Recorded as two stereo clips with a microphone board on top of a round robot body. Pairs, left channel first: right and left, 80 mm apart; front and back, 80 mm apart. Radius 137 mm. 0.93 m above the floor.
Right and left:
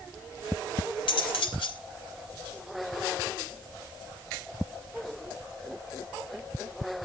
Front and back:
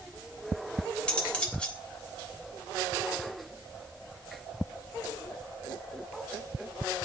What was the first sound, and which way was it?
Cutlery clinking, 80° right.